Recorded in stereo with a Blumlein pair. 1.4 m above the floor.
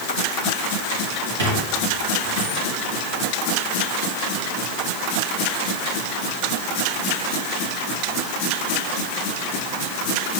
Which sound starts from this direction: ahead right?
A squeak, at 1.4 s.